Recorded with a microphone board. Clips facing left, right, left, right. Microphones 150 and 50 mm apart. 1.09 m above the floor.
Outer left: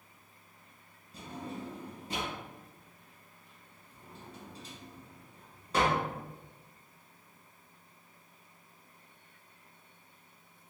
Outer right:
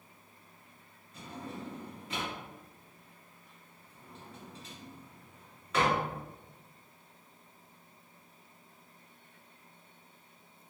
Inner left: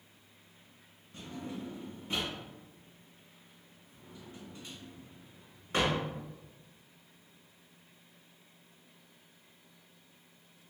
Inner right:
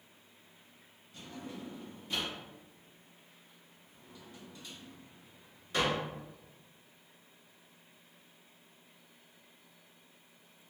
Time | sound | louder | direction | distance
1.1 | a drawer | outer left 1 dB, inner left 3 dB | 35° left (ahead or behind) | 1.7 m